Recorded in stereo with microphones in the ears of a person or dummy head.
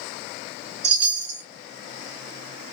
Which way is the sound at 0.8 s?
40° right (ahead or behind).